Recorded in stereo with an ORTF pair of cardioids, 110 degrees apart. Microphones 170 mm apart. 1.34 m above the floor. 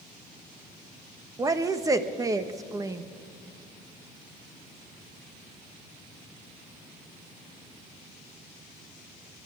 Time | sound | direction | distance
1.4 | a woman speaking | 20° right | 1.5 m